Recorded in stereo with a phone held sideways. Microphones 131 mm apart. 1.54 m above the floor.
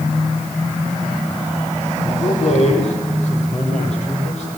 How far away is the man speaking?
About 4.5 m.